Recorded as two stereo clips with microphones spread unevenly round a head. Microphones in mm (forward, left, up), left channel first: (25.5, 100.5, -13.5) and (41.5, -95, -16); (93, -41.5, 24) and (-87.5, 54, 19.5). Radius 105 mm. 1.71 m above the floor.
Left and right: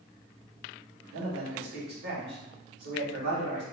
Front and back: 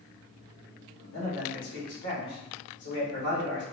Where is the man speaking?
60° right, 1.8 m.